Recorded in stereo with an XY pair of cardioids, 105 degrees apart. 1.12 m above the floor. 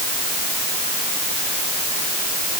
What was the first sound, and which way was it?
Only background noise.